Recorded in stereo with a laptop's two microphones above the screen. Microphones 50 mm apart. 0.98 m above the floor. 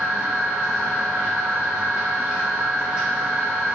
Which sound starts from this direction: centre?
A machine running, at 0.0 s.